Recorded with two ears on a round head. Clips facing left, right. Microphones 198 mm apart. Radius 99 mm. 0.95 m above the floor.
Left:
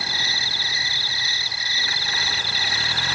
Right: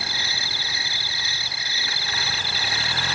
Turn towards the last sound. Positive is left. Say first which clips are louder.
# left 1 dB
turn(degrees=-45)  # may be behind; listen again after turning